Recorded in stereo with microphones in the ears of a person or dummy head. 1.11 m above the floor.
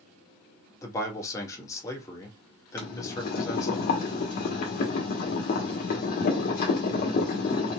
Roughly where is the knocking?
I don't hear knocking.